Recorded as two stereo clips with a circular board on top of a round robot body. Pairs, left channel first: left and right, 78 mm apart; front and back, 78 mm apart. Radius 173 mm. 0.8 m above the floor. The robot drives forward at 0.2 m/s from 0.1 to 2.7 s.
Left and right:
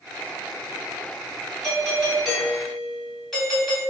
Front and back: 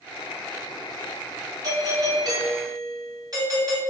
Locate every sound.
1.6 s a doorbell: 175° left, 1.8 m